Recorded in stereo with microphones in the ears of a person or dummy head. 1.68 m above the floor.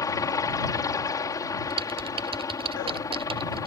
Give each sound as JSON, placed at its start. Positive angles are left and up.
{"t": 0.0, "sound": "a helicopter", "side_deg": 20}
{"t": 1.7, "sound": "typing on a keyboard", "side_deg": -25}